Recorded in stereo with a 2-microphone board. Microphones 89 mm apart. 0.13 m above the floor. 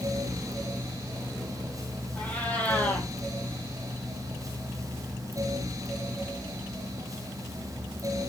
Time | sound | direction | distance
2.1 | a cat meowing | 15° left (ahead or behind) | 2.5 m